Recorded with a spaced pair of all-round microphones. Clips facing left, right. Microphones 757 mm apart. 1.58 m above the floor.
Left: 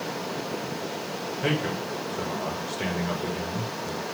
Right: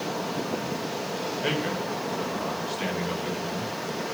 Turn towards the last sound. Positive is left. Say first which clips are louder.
# left 2 dB
turn(degrees=75)  # may be behind; listen again after turning